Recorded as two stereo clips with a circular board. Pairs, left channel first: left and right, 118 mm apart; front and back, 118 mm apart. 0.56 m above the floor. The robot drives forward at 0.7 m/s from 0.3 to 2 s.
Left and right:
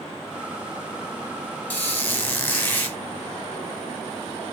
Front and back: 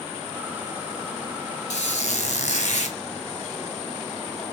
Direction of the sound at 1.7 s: 15° left.